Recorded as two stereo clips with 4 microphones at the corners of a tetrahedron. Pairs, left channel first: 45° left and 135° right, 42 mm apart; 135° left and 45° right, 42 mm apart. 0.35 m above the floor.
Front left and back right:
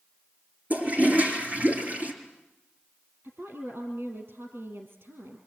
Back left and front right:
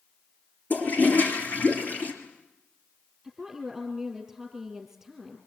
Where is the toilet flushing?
Straight behind, 6.5 m.